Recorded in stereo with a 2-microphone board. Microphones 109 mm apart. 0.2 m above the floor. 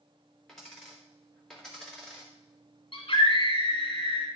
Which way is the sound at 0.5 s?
5° left (ahead or behind).